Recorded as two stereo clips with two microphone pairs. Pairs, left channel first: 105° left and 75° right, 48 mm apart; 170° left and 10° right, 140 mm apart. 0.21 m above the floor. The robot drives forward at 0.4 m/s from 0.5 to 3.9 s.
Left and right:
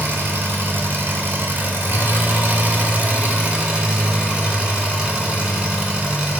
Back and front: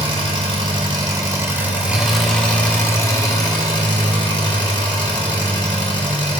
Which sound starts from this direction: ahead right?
An engine running, at 0.0 s.